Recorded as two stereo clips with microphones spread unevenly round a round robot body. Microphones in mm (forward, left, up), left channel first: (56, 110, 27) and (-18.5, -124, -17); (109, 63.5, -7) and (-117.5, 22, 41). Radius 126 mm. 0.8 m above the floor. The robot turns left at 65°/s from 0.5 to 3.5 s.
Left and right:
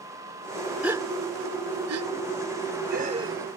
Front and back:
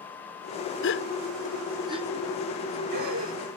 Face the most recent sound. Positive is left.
turn(degrees=165)